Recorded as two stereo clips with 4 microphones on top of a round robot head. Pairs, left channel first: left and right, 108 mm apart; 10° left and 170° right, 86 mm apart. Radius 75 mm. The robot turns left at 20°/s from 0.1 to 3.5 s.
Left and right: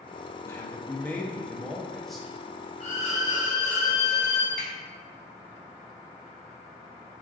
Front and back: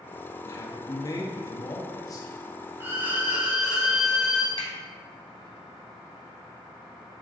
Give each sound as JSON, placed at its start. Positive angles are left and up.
{"t": 0.5, "sound": "a man speaking", "azimuth_deg": 35, "distance_m": 0.8}
{"t": 2.8, "sound": "a violin", "azimuth_deg": 130, "distance_m": 0.8}
{"t": 4.6, "sound": "a finger snap", "azimuth_deg": 170, "distance_m": 1.4}